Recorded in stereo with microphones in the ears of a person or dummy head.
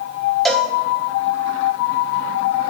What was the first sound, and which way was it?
A cowbell, 5° left (ahead or behind).